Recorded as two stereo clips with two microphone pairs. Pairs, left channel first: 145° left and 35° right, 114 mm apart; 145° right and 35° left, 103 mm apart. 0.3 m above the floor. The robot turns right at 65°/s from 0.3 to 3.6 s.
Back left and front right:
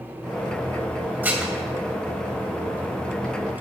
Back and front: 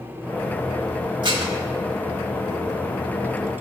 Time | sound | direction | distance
1.2 | dishes clattering | 35° left | 0.8 m